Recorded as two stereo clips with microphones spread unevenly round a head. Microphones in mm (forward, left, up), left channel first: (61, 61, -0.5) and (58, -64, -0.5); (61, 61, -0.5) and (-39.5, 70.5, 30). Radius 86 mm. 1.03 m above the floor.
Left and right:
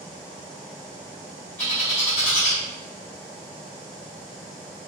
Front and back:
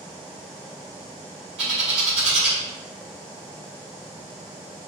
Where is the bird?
165° left, 1.6 m.